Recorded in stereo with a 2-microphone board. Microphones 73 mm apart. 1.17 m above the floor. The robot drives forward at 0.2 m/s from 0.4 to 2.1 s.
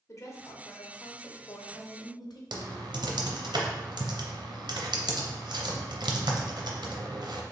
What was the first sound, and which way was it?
A woman speaking, 45° left (ahead or behind).